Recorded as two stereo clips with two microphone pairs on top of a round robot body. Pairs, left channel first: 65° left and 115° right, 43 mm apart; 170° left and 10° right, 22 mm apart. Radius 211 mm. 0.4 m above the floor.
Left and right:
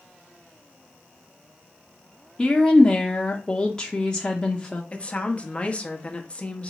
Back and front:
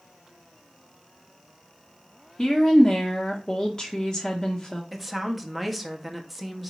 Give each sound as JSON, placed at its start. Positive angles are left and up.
{"t": 2.4, "sound": "a woman speaking", "azimuth_deg": 125, "distance_m": 0.9}
{"t": 4.9, "sound": "a woman speaking", "azimuth_deg": 75, "distance_m": 1.0}